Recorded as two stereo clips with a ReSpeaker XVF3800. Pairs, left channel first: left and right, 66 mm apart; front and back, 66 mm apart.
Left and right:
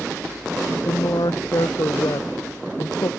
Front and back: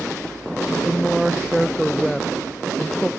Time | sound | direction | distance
0.7 | a woman speaking | 90° left | ?